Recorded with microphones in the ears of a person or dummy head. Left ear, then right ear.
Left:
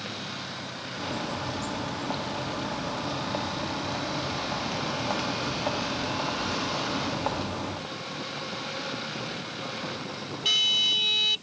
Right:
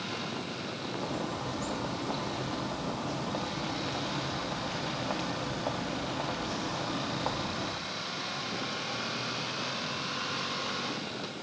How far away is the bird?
About 1.0 m.